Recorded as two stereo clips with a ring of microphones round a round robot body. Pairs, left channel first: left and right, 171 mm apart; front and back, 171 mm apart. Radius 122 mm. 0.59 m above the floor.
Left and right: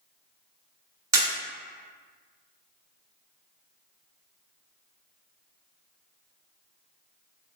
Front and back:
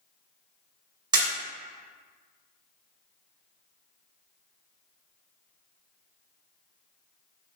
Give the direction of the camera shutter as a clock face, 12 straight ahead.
5 o'clock.